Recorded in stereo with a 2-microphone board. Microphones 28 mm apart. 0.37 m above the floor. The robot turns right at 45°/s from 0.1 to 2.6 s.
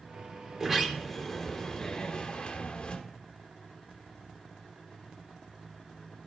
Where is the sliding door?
25° right, 0.8 m; by 3.0 s 70° left, 0.8 m.